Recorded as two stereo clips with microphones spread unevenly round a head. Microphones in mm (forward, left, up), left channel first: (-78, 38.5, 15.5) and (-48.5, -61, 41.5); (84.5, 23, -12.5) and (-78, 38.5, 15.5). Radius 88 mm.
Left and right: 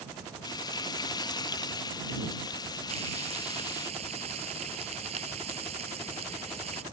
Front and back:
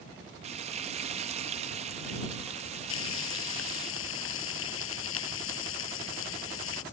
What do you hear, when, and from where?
0.4 s frying: 160° left
2.9 s frying: 20° right